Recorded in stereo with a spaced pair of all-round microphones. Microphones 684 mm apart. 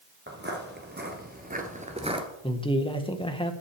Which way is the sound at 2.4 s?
5° left (ahead or behind).